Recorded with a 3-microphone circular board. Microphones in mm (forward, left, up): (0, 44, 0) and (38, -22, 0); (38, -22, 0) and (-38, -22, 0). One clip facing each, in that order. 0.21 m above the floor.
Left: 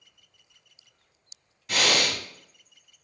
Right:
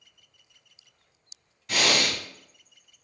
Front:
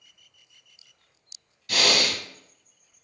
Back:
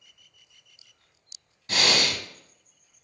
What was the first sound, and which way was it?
Breathing, 155° right.